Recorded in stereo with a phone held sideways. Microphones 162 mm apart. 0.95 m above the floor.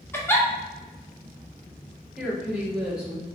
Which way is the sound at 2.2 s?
5° right (ahead or behind).